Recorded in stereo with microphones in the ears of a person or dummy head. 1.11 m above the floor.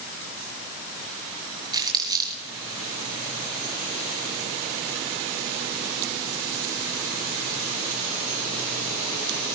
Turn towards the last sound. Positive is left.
turn(degrees=-25)  # may be behind; listen again after turning